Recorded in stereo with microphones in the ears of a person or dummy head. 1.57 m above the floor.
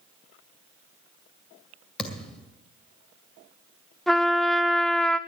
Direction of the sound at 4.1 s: 5° left (ahead or behind).